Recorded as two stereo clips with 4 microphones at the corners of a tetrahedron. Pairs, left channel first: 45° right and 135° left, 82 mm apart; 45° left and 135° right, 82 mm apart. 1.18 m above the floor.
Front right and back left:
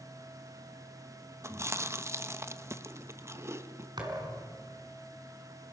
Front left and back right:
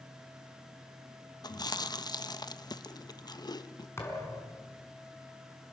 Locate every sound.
1.4 s chewing: 80° left, 1.0 m
4.0 s a thud: 105° left, 6 m